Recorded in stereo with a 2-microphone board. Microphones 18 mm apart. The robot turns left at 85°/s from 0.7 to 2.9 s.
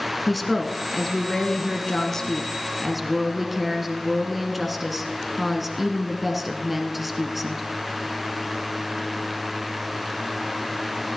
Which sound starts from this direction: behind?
A woman speaking, at 0.3 s.